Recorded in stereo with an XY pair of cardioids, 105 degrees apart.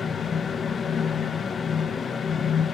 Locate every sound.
0.0 s a fan: 45° left, 0.8 m